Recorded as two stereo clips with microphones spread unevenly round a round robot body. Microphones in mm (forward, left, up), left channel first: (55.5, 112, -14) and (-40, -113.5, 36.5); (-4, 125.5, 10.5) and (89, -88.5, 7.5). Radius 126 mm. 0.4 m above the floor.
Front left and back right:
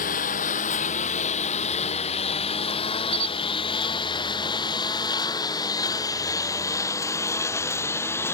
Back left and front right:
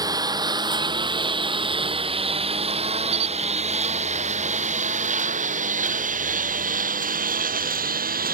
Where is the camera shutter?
55° right.